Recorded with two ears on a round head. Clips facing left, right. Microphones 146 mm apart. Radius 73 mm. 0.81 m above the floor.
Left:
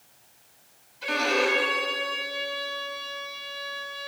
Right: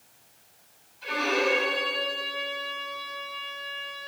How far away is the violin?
About 6 m.